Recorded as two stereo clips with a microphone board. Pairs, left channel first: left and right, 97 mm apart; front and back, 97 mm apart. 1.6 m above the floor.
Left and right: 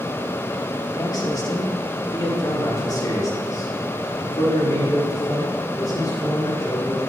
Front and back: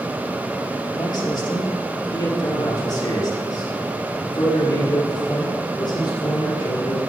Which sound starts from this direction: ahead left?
A man speaking, at 0.9 s.